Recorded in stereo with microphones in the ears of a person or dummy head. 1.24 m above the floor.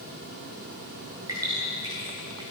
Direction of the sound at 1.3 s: 15° right (ahead or behind).